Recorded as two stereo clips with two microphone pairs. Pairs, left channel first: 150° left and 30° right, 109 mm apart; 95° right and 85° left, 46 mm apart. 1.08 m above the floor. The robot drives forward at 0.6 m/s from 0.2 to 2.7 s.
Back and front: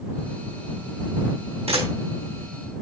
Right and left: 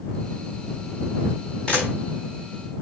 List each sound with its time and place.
1.7 s a camera shutter: 30° right, 4 m